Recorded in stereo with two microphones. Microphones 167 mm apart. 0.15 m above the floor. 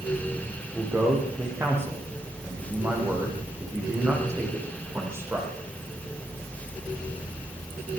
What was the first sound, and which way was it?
A man speaking, 15° right (ahead or behind).